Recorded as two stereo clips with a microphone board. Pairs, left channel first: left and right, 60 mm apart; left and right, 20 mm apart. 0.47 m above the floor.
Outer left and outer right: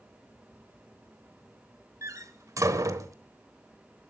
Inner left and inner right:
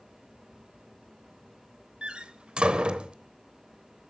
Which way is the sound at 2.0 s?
60° right (ahead or behind).